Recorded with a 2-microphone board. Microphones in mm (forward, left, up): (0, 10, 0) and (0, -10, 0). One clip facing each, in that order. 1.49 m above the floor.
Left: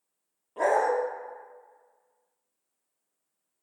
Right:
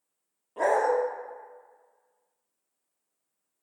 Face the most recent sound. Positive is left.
turn(degrees=5)  # may be behind; listen again after turning